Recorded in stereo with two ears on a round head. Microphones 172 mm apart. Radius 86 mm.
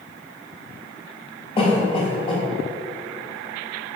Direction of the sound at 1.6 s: 30° left (ahead or behind).